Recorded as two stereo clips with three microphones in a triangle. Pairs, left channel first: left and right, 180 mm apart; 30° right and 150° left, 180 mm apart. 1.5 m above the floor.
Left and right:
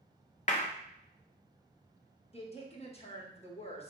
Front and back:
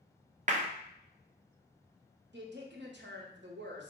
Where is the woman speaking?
145° left, 1.0 m.